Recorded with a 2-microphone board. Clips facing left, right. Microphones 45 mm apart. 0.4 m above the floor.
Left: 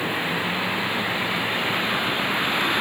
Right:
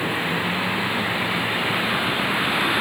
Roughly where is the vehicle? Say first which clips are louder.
Right 1 dB; centre.